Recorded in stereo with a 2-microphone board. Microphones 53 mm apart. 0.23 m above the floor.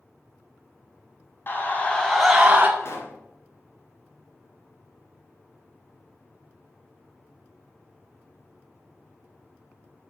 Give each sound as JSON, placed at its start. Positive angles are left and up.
{"t": 1.5, "sound": "a scream", "side_deg": 40, "distance_m": 1.6}
{"t": 2.8, "sound": "a pop", "side_deg": 60, "distance_m": 1.5}